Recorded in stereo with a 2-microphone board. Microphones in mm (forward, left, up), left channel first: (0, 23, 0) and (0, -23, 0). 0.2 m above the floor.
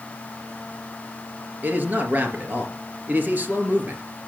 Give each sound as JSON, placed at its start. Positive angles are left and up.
{"t": 1.6, "sound": "a man speaking", "side_deg": -40, "distance_m": 3.0}